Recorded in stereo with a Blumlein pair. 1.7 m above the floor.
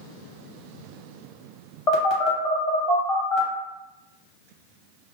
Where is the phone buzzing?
35° left, 1.2 m.